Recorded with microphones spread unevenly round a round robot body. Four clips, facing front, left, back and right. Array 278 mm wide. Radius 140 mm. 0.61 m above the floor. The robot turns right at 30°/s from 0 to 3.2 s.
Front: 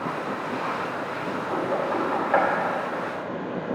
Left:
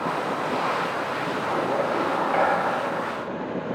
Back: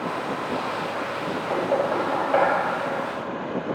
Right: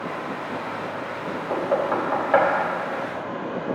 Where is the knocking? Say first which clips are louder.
Right 3 dB, back 3 dB; 125° right, 2.5 m; by 2.5 s 95° right, 2.5 m.